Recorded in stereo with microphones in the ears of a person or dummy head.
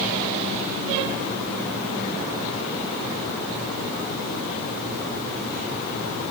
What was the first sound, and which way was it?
Only background noise.